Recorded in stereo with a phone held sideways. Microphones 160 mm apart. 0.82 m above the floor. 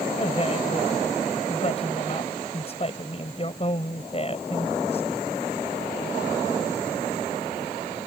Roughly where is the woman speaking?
Left.